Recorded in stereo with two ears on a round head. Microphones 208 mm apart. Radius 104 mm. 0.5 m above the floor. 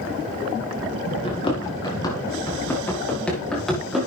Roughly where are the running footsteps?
Left.